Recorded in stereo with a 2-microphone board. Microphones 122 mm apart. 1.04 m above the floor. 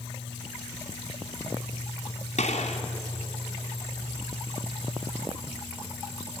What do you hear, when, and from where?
2.4 s a gunshot: 75° left (ahead or behind), 2.5 m